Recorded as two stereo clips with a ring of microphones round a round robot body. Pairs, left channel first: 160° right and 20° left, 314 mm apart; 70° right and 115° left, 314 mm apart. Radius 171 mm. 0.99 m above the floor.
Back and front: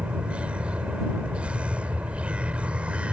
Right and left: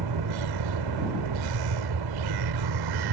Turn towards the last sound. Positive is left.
turn(degrees=110)